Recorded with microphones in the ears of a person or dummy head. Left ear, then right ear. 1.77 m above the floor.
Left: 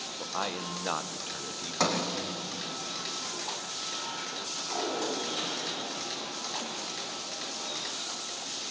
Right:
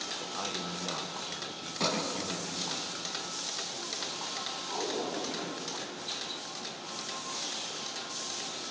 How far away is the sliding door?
About 2.5 m.